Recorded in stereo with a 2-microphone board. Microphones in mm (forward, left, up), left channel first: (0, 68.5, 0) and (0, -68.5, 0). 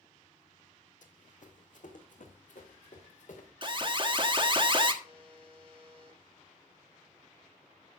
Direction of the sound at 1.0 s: 65° left (ahead or behind).